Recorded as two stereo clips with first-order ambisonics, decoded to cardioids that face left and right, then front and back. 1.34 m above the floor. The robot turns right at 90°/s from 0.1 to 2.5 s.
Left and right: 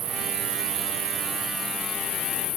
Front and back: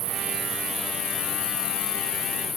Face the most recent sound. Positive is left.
turn(degrees=70)